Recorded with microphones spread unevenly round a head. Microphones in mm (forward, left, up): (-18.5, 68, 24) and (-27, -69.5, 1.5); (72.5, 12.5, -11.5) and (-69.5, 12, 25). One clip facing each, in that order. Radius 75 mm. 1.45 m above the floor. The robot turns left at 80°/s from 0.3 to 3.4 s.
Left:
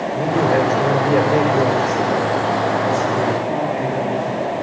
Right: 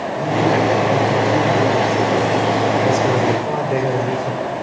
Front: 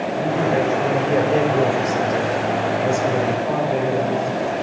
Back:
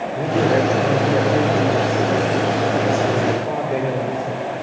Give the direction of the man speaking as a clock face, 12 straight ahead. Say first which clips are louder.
Even, back 3 dB; 7 o'clock.